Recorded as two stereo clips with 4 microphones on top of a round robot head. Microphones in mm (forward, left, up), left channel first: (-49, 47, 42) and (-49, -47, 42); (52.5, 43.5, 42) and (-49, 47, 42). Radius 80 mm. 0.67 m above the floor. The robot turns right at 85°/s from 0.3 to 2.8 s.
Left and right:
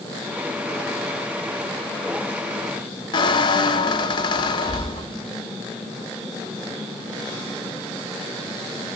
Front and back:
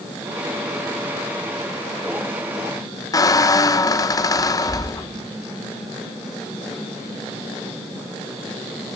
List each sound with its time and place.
3.1 s a squeak: 50° left, 1.1 m